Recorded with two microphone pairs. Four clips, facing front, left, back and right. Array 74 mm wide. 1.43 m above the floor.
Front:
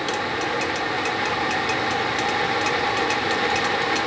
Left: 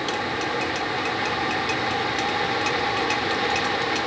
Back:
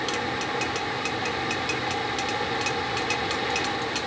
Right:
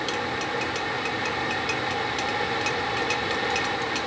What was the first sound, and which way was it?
Only background noise.